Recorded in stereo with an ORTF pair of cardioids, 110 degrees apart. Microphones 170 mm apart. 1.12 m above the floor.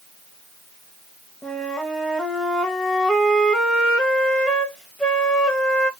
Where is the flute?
5° left, 0.9 m.